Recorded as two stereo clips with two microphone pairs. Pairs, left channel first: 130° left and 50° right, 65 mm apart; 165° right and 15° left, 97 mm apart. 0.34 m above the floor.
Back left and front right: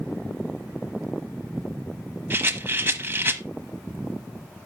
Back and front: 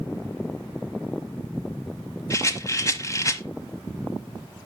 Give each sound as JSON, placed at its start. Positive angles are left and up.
{"t": 2.3, "sound": "a rattle", "azimuth_deg": -110, "distance_m": 0.9}